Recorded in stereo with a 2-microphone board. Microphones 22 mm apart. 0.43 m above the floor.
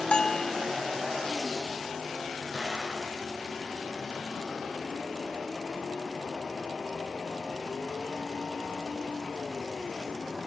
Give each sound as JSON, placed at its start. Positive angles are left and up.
{"t": 0.1, "sound": "a bell", "side_deg": 45, "distance_m": 0.6}
{"t": 2.5, "sound": "an explosion", "side_deg": -40, "distance_m": 4.5}